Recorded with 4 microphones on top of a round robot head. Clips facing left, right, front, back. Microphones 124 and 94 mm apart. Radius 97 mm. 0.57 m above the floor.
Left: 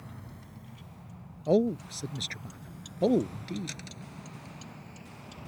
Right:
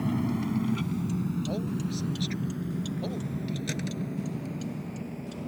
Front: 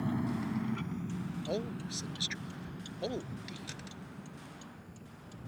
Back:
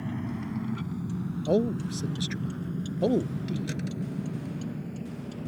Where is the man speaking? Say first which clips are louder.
Left 6 dB, back 13 dB; 130° left.